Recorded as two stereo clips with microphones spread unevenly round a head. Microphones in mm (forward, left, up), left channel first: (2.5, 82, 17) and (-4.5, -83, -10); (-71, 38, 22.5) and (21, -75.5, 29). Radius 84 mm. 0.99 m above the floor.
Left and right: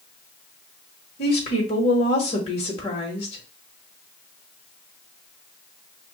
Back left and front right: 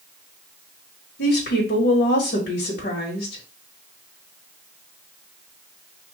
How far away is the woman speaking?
About 1.1 m.